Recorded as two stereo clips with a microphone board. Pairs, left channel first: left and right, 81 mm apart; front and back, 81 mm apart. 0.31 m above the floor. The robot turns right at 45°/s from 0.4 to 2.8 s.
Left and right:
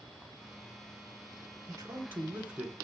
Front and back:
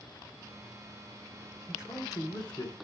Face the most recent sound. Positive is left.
turn(degrees=0)